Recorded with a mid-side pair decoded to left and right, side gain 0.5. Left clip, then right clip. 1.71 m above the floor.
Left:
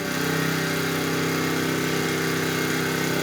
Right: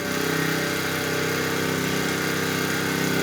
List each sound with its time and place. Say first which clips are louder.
0.0 s an engine running: right 1 dB; 10° right, 1.0 m